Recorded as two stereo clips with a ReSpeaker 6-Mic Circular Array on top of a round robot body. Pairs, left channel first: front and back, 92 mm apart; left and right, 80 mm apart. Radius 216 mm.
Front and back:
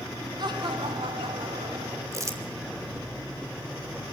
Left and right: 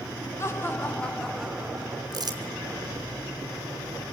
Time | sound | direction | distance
0.4 | laughter | 145° left | 2.5 m
2.1 | crumpling | 125° right | 4.5 m